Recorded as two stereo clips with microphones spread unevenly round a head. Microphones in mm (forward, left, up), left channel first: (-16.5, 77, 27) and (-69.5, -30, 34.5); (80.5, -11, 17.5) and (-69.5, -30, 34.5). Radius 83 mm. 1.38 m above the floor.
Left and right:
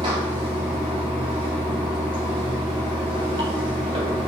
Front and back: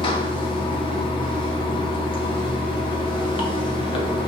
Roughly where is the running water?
Ahead right.